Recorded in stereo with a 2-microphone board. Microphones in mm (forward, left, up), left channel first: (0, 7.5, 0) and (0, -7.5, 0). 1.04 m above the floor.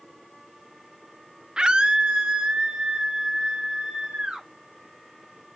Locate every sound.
1.6 s a scream: 55° right (ahead or behind), 0.8 m; by 4.5 s 70° right (ahead or behind), 5 m